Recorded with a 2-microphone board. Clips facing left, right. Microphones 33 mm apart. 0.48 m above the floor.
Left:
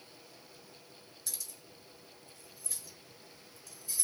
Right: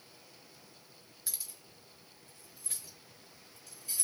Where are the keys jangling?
20° right (ahead or behind), 0.9 m; by 4.0 s 65° right (ahead or behind), 1.7 m.